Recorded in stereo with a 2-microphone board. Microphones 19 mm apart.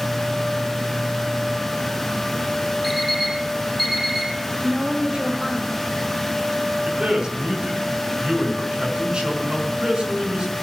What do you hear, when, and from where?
2.8 s an alarm clock: 5° right (ahead or behind), 6 m
4.6 s a woman speaking: 75° right (ahead or behind), 5.5 m
6.9 s a man speaking: 60° right (ahead or behind), 5 m